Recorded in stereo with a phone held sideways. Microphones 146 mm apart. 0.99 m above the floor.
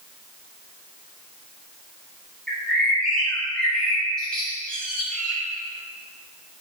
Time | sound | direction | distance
2.5 | a bird | 5° left (ahead or behind) | 2.5 m